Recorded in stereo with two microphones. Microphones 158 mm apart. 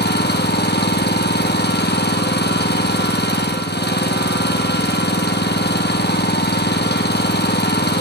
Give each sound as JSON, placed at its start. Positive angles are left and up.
{"t": 0.0, "sound": "an engine running", "side_deg": 85, "distance_m": 2.0}